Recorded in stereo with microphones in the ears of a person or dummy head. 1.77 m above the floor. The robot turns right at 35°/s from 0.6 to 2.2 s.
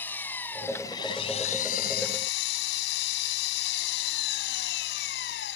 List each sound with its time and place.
0.0 s an engine running: 10° left; by 5.6 s 65° left